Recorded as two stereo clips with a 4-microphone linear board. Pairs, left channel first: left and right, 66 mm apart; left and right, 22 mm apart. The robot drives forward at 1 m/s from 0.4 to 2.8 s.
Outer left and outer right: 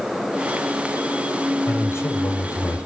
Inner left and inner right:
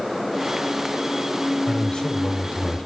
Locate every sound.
1.7 s a man speaking: 35° left (ahead or behind), 1.9 m; by 2.9 s 60° left (ahead or behind), 1.3 m